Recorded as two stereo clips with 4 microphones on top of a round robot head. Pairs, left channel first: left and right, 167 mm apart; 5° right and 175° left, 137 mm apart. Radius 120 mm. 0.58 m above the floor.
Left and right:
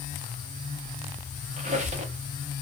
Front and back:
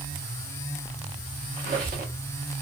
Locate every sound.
1.6 s a squeak: 130° right, 0.6 m